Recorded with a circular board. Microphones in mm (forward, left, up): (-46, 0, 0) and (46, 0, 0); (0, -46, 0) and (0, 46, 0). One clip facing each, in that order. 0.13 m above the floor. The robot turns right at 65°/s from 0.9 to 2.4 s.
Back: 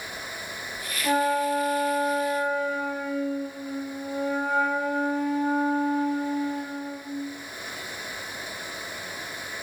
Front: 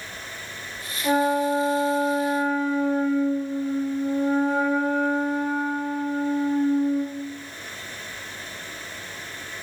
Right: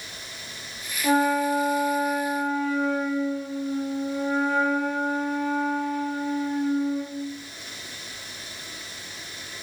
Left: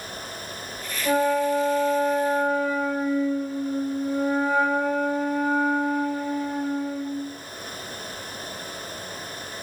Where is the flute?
85° right, 4 m; by 7.2 s 5° left, 4 m.